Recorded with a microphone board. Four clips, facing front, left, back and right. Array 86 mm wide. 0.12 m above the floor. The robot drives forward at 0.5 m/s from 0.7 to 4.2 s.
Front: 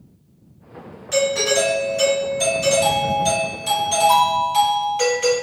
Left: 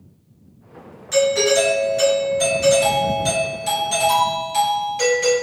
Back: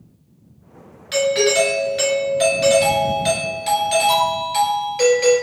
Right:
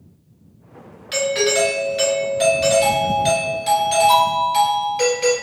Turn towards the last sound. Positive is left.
turn(degrees=-160)